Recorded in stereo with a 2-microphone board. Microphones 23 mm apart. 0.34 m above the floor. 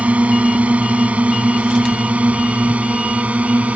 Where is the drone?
60° right (ahead or behind); by 3.8 s 65° right (ahead or behind).